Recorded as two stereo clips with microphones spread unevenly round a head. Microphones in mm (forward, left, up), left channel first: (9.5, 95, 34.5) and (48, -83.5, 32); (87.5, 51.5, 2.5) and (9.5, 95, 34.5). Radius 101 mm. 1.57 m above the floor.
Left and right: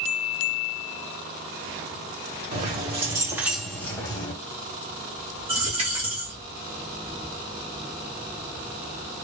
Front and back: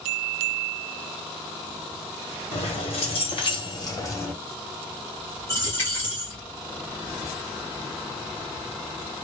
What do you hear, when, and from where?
2.5 s keys jangling: 35° right, 1.5 m; by 4.3 s 45° left, 1.3 m
5.5 s a dropped coin: 115° right, 1.0 m